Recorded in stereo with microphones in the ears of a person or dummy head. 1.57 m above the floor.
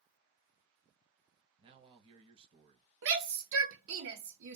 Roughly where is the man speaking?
Right.